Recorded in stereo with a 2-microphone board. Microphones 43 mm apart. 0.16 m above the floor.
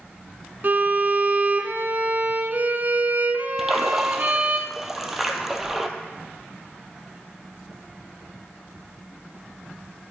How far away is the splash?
About 1.0 m.